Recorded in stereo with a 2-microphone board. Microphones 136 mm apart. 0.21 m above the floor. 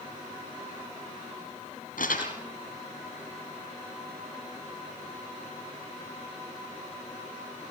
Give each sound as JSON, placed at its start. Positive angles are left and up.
{"t": 2.0, "sound": "crumpling", "side_deg": 80, "distance_m": 6.0}